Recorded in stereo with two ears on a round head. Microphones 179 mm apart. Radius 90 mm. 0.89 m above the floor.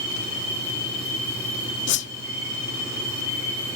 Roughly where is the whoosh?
Left.